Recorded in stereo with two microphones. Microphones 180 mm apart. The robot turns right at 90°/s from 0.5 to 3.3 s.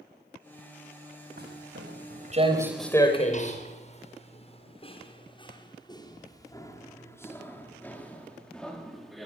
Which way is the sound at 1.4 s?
60° right (ahead or behind).